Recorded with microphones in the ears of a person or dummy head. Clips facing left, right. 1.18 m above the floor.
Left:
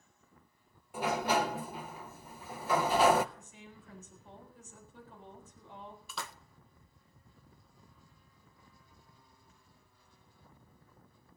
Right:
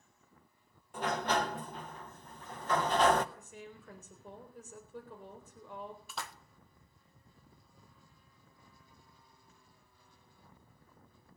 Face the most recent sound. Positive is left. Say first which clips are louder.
# even
turn(degrees=85)